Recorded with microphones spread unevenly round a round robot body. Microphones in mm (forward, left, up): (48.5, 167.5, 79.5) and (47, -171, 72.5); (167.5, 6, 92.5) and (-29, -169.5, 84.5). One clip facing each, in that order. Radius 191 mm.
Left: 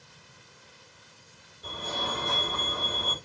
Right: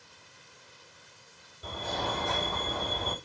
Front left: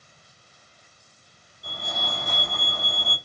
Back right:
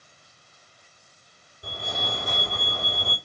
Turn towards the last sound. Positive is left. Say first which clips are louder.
# right 1 dB, back right 2 dB
turn(degrees=-115)